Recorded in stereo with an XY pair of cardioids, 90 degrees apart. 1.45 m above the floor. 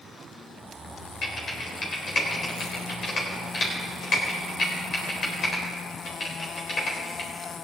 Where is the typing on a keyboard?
55° left, 3.5 m.